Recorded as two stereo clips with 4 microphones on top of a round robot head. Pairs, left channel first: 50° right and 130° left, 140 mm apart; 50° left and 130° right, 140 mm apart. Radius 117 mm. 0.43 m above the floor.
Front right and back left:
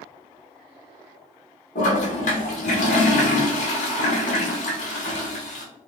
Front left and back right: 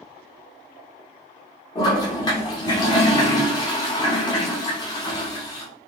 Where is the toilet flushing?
15° right, 0.6 m.